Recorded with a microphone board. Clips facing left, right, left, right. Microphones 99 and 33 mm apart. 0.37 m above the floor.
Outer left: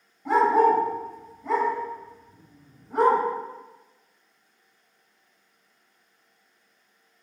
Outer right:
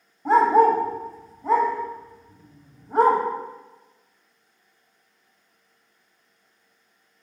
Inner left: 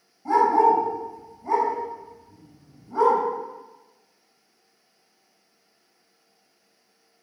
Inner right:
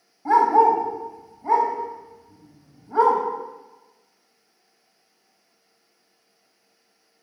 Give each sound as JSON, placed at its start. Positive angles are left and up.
{"t": 0.2, "sound": "a dog barking", "side_deg": -40, "distance_m": 0.6}